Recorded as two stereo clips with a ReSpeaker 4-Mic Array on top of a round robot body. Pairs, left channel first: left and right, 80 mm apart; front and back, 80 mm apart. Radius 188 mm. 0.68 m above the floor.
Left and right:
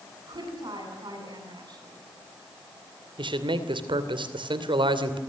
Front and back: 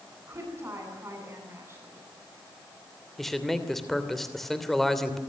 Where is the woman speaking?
120° right, 9.5 m.